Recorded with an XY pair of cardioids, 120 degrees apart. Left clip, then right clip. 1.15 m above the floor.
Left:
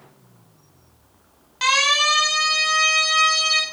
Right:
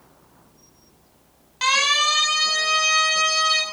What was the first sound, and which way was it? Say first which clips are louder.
A siren: left 1 dB; 5° left.